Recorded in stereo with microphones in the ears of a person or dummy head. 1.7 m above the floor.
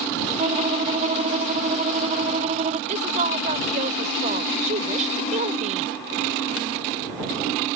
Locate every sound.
0.4 s a violin: 40° right (ahead or behind)
2.9 s a woman speaking: 45° right (ahead or behind)